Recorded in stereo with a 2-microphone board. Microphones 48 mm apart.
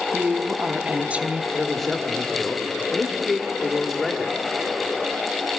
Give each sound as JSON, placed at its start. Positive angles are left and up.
{"t": 0.1, "sound": "a woman speaking", "side_deg": -30, "distance_m": 0.7}
{"t": 1.5, "sound": "a man speaking", "side_deg": 5, "distance_m": 1.7}